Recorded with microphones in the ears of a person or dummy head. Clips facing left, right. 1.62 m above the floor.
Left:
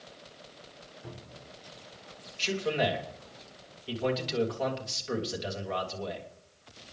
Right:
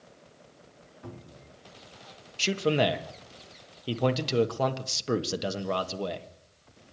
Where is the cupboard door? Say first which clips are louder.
Right 3 dB; 80° right, 4 m.